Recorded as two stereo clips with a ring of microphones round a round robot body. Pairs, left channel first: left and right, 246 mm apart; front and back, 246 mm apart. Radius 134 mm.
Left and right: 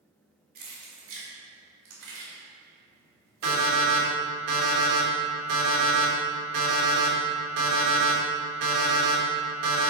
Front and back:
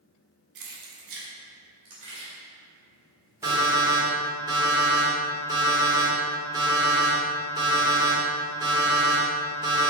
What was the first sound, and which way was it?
Keys jangling, 150° right.